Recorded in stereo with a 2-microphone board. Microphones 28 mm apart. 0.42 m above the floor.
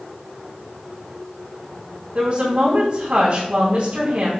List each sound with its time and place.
2.1 s a woman speaking: 35° right (ahead or behind), 2.5 m